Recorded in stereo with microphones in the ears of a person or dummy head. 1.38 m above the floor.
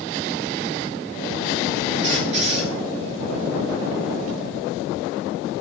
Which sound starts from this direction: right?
A squeak, at 2.0 s.